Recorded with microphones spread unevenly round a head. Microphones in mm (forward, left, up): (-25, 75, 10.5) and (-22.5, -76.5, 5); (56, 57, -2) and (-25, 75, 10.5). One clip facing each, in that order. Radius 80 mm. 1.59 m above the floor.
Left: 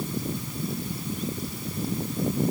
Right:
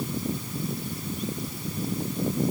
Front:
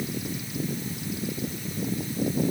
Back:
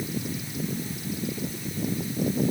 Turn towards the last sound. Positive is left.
No sound to turn to.